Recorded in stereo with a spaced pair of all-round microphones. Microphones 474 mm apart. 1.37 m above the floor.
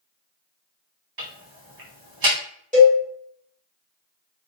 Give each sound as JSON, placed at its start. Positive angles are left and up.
{"t": 1.2, "sound": "ticking", "side_deg": -50, "distance_m": 0.8}
{"t": 2.7, "sound": "a cowbell", "side_deg": -15, "distance_m": 1.2}